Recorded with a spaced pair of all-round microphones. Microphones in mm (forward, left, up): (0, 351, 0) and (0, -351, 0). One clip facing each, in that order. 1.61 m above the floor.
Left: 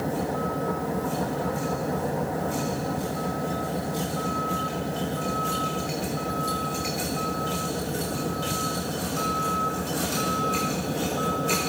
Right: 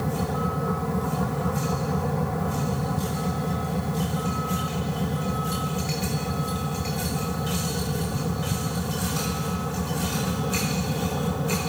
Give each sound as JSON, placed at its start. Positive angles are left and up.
{"t": 0.0, "sound": "a vehicle", "side_deg": -40}